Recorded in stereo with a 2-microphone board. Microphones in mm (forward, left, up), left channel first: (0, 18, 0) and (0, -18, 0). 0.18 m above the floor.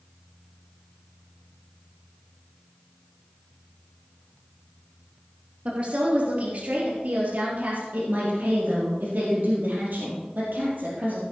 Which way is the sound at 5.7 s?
40° right (ahead or behind).